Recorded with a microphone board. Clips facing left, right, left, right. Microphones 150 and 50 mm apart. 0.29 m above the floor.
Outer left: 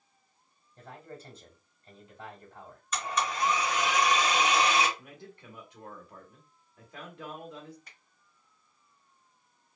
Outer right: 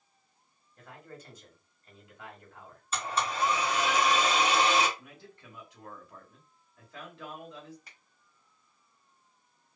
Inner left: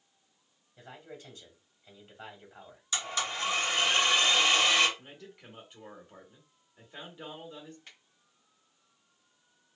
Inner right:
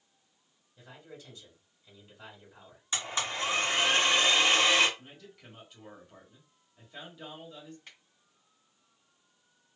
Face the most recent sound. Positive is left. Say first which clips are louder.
# even, inner right 1 dB
turn(degrees=-5)  # may be behind; listen again after turning